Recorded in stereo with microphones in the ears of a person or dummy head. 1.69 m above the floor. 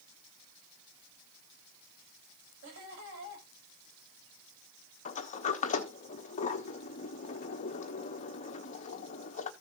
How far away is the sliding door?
About 1.0 m.